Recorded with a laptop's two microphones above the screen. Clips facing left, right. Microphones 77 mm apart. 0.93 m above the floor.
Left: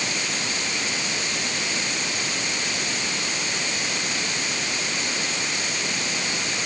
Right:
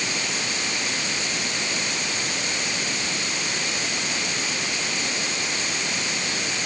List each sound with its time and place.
Only background noise.